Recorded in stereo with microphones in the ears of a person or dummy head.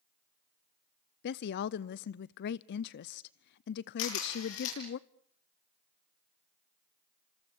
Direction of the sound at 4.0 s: 75° left (ahead or behind).